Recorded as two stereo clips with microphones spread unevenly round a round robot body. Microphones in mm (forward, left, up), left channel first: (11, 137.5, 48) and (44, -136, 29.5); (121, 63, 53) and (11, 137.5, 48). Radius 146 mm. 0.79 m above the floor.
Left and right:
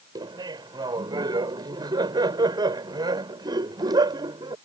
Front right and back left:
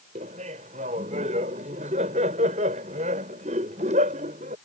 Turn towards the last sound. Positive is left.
turn(degrees=-160)